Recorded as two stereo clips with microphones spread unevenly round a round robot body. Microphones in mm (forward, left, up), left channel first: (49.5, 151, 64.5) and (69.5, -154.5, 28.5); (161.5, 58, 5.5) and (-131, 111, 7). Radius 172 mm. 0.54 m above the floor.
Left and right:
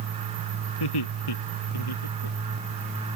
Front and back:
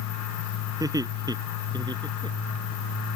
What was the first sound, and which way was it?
Laughter, 90° left.